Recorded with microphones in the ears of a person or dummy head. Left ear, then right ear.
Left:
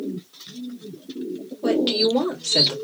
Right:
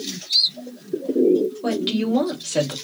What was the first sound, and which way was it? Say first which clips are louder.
A woman speaking: left 4 dB; 15° left (ahead or behind).